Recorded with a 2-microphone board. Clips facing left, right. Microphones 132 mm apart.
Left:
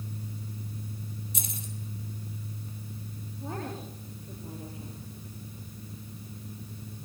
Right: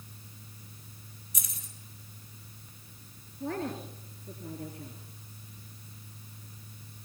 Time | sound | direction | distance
1.3 | keys jangling | 25° left (ahead or behind) | 4.5 m
3.4 | a woman speaking | 70° right (ahead or behind) | 4 m